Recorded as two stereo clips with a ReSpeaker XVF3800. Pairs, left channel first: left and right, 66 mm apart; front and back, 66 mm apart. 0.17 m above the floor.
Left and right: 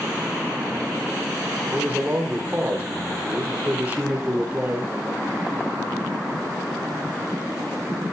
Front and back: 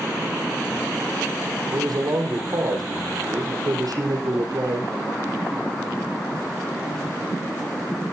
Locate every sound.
1.7 s a man speaking: 155° right, 5.5 m